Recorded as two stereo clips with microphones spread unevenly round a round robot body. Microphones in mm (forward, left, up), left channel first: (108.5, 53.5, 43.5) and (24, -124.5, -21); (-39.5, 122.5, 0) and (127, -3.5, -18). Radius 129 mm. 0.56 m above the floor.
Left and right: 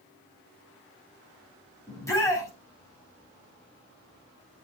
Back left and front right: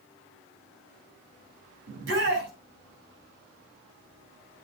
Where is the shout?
15° right, 5.5 m.